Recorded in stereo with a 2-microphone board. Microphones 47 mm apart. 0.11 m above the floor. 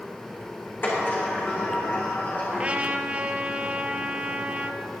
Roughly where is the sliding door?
Left.